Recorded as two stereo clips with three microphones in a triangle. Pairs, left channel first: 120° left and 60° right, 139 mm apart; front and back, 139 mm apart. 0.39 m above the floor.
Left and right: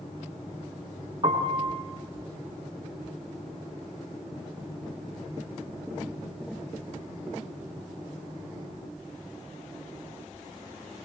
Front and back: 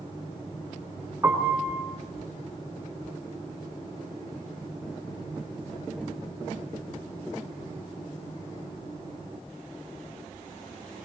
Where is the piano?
110° right, 4 m.